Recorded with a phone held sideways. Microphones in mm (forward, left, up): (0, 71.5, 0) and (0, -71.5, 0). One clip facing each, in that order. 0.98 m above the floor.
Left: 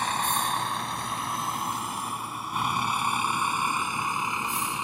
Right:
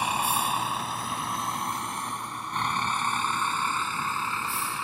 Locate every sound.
0.0 s a vehicle: 10° right (ahead or behind); by 4.8 s 20° left (ahead or behind)